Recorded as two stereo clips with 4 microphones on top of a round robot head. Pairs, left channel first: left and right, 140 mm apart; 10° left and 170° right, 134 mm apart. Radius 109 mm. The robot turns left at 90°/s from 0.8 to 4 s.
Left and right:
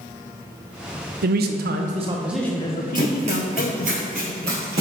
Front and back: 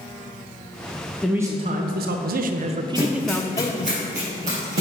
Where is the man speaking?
75° right, 0.6 m; by 4.0 s 35° left, 0.6 m.